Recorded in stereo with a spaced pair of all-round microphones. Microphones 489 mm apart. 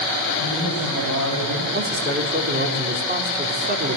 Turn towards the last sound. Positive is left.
turn(degrees=-20)  # may be behind; listen again after turning